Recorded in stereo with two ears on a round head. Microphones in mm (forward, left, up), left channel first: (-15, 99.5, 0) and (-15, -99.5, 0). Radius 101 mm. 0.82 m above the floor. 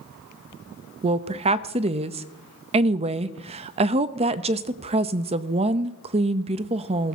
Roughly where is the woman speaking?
Right.